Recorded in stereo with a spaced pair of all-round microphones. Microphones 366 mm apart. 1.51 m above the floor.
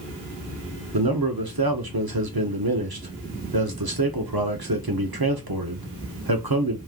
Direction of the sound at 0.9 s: 65° right (ahead or behind).